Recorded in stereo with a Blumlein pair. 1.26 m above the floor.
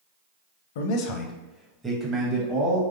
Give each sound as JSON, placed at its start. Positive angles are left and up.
{"t": 0.8, "sound": "a man speaking", "azimuth_deg": 55, "distance_m": 0.6}